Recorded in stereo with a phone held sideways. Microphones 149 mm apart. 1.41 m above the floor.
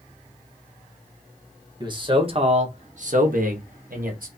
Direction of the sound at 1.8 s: 30° right (ahead or behind).